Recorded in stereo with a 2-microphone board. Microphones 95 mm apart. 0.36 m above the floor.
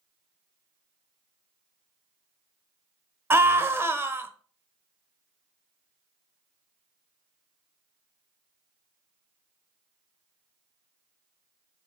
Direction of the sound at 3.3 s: 25° right (ahead or behind).